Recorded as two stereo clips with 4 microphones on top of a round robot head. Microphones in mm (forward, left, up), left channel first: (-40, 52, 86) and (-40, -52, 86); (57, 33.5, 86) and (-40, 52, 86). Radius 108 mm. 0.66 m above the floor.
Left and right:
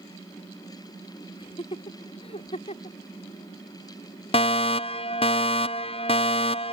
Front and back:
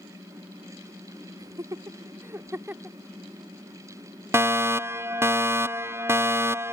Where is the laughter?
120° left; by 3.0 s 95° left.